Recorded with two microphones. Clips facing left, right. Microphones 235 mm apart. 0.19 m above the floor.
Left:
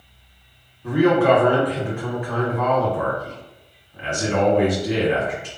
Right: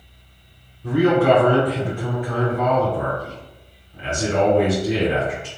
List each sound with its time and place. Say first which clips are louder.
0.8 s a man speaking: even; 30° right (ahead or behind), 1.8 m